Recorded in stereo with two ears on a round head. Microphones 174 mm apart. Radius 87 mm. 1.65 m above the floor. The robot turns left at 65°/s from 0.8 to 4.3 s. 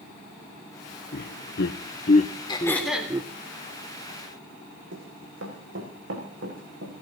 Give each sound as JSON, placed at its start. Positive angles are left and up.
{"t": 1.1, "sound": "laughter", "side_deg": 50, "distance_m": 0.8}
{"t": 2.5, "sound": "throat clearing", "azimuth_deg": 25, "distance_m": 3.0}
{"t": 4.9, "sound": "running footsteps", "side_deg": -70, "distance_m": 5.0}